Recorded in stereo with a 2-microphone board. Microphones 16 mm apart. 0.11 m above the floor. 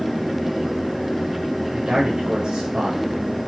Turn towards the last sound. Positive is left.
turn(degrees=-50)  # may be behind; listen again after turning